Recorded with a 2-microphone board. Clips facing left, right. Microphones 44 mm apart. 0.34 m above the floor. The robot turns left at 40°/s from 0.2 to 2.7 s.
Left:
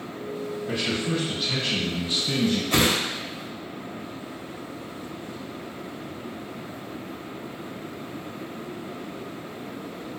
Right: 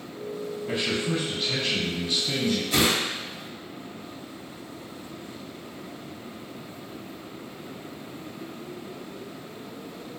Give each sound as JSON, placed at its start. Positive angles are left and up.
{"t": 0.7, "sound": "a man speaking", "azimuth_deg": -160, "distance_m": 1.9}
{"t": 2.7, "sound": "a whoosh", "side_deg": 45, "distance_m": 0.6}